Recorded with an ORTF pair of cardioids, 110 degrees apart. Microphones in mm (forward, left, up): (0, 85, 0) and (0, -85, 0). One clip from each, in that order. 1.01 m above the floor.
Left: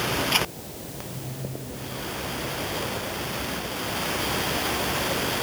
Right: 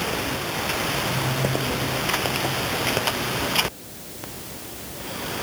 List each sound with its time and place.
Only background noise.